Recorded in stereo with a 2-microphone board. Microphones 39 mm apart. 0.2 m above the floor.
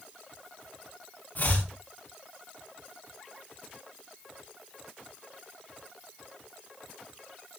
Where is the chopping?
50° left (ahead or behind), 9.5 m.